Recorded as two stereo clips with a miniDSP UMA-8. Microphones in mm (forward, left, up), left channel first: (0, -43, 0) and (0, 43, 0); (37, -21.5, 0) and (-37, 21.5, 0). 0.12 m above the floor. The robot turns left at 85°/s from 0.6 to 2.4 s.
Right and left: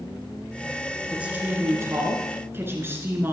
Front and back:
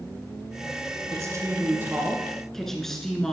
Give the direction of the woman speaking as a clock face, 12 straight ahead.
7 o'clock.